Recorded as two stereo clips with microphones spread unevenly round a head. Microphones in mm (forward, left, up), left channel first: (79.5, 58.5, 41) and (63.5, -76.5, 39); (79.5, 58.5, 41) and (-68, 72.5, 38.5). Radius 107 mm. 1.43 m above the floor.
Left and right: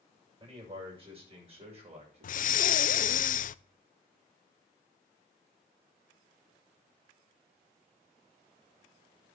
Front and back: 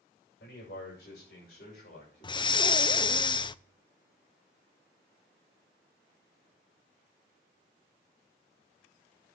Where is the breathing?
55° left, 0.6 m.